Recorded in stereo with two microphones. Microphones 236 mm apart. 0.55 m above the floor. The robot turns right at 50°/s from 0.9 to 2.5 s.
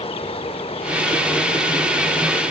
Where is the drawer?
I don't hear a drawer.